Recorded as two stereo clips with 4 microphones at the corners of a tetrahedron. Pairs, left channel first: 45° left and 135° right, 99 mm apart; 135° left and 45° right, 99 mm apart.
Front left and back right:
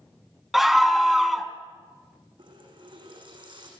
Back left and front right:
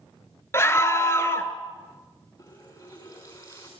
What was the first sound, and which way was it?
A scream, 140° left.